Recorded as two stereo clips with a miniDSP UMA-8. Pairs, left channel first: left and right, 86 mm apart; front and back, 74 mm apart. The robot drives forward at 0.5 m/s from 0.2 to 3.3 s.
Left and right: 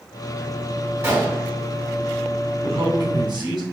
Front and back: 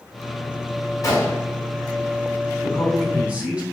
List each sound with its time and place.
1.0 s a gunshot: 35° right, 2 m; by 1.5 s 40° right, 2 m
2.6 s a man speaking: 100° right, 2.0 m; by 3.6 s 110° right, 2 m